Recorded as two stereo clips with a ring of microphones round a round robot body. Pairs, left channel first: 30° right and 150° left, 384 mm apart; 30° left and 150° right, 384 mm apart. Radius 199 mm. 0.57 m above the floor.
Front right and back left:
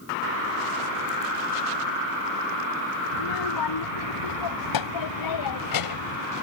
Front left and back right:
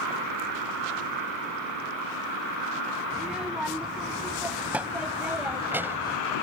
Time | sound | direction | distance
3.1 | a child speaking | 60° right | ?